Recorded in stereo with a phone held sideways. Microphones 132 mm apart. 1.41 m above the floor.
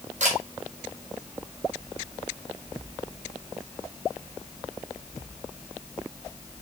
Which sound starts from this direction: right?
A camera shutter, at 0.2 s.